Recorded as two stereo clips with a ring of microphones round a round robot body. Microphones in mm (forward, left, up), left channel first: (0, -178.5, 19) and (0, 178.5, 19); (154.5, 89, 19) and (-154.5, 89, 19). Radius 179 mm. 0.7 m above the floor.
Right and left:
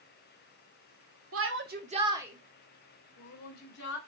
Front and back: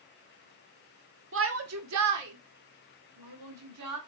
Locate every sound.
1.3 s a shout: 135° left, 1.8 m; by 4.0 s 150° right, 3 m